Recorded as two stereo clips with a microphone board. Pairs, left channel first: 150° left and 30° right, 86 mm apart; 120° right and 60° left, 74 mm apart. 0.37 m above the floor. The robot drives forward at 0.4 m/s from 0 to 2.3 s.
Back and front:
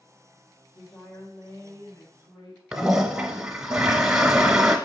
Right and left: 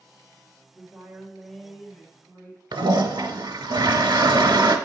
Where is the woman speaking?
150° left, 0.9 m; by 2.6 s 170° left, 1.3 m.